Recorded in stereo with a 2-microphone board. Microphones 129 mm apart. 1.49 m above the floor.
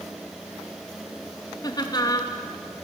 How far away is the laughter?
About 3 m.